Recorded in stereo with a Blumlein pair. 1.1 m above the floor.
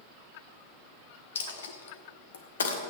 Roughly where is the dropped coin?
Ahead left.